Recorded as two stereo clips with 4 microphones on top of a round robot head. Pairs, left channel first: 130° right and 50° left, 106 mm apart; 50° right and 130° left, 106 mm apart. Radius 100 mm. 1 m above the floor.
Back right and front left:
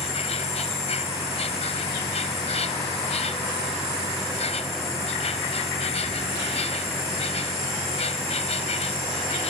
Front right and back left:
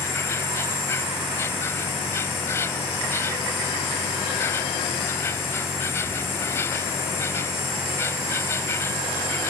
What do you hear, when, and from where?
0.0 s an insect: 115° right